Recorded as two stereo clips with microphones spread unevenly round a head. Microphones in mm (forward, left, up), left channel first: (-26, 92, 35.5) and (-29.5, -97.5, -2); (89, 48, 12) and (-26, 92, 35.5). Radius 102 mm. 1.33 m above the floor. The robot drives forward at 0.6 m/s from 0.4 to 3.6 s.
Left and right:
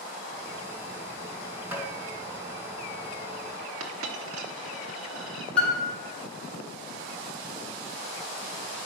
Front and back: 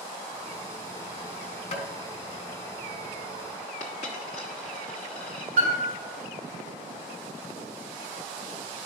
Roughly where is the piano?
Behind.